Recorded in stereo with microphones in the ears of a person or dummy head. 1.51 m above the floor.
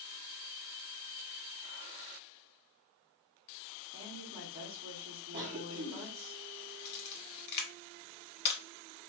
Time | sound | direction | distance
3.9 | a woman speaking | 30° right (ahead or behind) | 0.6 m
5.3 | a cough | 30° right (ahead or behind) | 0.5 m
6.8 | a camera shutter | 55° left (ahead or behind) | 0.7 m